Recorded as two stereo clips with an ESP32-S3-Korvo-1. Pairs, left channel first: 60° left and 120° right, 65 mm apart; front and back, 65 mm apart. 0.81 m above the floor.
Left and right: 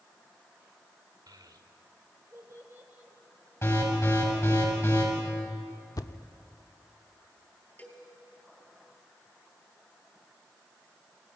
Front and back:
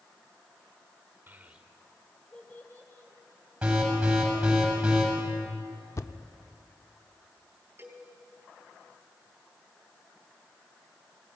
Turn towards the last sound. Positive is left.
turn(degrees=120)